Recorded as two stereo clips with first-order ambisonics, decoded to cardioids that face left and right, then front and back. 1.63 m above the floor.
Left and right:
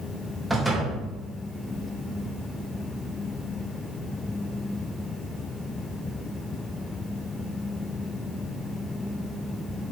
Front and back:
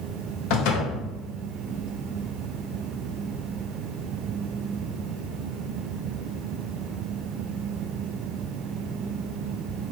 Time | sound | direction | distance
0.5 | a door slam | 10° right | 1.9 m